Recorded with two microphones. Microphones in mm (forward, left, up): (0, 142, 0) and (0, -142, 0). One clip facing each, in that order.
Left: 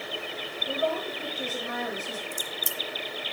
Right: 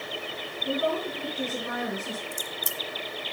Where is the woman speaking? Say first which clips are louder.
Right 2 dB; 65° right (ahead or behind), 5.5 m.